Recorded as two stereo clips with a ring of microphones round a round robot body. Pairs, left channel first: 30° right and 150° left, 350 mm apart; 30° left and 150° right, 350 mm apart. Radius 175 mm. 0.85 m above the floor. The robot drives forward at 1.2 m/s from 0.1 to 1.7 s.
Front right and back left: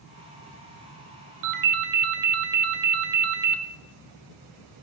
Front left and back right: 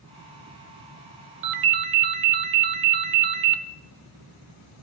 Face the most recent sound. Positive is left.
turn(degrees=-175)